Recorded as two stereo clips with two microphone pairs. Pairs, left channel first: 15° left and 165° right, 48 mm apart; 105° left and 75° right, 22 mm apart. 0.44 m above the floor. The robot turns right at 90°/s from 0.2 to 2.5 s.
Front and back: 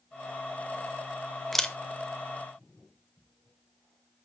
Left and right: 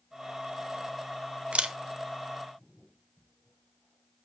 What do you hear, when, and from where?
1.5 s a camera shutter: 70° right, 0.6 m; by 1.8 s 45° right, 0.6 m